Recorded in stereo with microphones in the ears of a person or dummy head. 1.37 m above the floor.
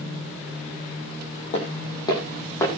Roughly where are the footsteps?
Left.